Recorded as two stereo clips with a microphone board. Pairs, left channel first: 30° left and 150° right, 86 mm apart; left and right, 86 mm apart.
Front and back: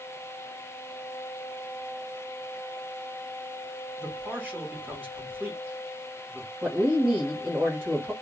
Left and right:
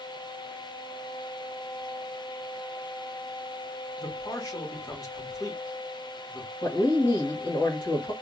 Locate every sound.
4.0 s a man speaking: 140° left, 1.7 m
6.6 s a woman speaking: 130° left, 1.7 m